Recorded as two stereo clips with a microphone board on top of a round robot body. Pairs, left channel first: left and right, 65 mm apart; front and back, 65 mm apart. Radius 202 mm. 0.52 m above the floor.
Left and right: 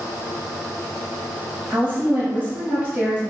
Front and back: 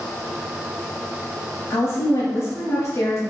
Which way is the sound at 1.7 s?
15° right.